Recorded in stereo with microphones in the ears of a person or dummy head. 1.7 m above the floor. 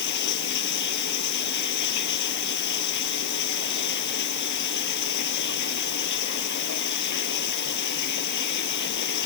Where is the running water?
65° left (ahead or behind).